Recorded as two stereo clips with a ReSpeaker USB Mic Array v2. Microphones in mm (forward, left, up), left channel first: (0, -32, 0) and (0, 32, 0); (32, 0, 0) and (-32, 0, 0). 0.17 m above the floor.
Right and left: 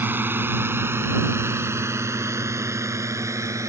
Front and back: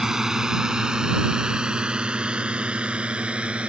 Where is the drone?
100° left; by 3.7 s 110° left.